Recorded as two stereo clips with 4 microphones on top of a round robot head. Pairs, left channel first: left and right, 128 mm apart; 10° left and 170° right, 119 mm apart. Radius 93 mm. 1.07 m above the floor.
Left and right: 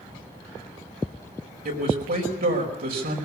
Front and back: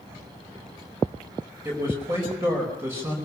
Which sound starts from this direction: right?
A man speaking, at 1.6 s.